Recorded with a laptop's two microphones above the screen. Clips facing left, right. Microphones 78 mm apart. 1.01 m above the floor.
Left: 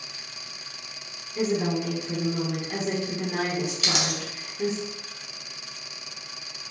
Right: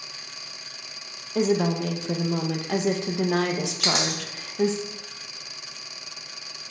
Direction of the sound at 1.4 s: 80° right.